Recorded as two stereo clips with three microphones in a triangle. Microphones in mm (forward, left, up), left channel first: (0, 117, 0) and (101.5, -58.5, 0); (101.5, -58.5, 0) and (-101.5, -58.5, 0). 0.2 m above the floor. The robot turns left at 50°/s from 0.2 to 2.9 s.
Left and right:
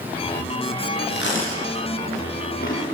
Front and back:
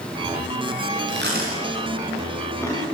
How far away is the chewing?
About 10 m.